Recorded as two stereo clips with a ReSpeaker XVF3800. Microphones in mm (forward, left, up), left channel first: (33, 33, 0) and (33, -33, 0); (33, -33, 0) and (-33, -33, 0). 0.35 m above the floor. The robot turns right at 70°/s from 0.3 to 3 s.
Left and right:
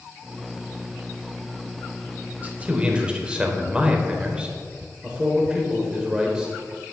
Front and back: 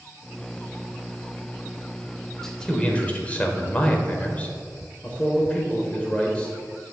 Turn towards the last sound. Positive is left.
turn(degrees=-35)